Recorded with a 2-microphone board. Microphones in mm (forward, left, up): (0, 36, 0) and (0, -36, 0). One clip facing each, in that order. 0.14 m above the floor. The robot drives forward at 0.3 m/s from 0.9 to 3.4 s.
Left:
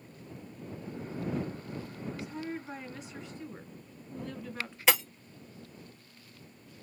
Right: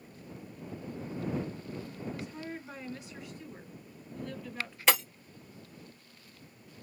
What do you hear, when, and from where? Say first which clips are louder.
2.0 s a woman speaking: left 3 dB; 15° left (ahead or behind), 1.7 m; by 4.8 s 20° left (ahead or behind), 1.6 m
4.9 s breaking glass: even; 5° left (ahead or behind), 1.4 m